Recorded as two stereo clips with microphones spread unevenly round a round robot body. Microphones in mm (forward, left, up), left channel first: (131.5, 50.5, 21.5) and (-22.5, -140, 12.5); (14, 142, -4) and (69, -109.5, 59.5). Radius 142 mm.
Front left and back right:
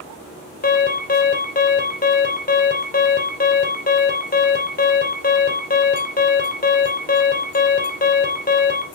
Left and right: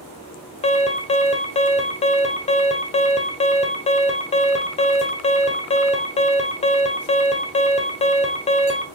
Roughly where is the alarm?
Left.